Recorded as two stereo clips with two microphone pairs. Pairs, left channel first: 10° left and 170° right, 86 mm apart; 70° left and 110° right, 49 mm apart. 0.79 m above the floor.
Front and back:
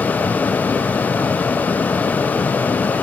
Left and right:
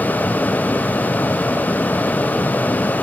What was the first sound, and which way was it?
Only background noise.